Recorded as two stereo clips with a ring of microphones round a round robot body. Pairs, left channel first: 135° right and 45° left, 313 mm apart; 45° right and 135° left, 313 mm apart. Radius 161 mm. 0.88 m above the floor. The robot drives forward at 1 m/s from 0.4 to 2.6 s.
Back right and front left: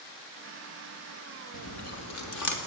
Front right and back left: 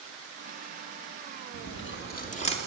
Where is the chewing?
90° right, 2 m; by 2.6 s 115° right, 2.5 m.